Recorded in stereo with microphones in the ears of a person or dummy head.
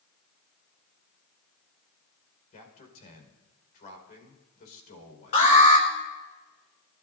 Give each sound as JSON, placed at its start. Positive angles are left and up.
{"t": 2.5, "sound": "a man speaking", "side_deg": 50, "distance_m": 5.0}
{"t": 5.3, "sound": "an alarm", "side_deg": 45, "distance_m": 4.5}